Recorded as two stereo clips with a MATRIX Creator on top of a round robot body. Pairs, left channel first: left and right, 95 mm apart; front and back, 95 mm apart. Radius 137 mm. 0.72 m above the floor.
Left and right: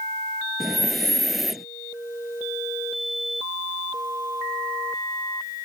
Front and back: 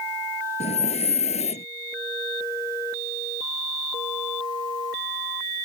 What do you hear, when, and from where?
0.6 s breathing: straight ahead